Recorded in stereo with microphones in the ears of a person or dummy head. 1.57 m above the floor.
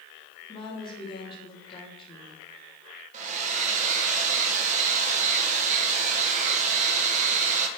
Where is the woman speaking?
30° left (ahead or behind), 3 m.